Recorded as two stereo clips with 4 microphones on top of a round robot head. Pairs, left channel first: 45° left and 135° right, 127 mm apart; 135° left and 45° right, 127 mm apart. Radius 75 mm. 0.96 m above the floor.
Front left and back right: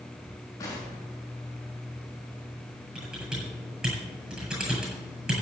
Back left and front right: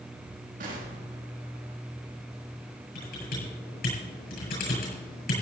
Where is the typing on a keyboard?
145° left, 8 m.